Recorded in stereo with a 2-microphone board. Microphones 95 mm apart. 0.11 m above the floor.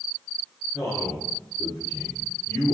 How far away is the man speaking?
About 1.8 m.